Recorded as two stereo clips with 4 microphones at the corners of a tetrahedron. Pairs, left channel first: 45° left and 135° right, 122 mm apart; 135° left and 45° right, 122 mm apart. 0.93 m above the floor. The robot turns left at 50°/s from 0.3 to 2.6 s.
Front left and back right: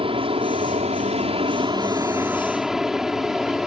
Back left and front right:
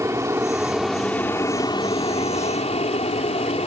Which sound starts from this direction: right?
An aircraft, at 0.0 s.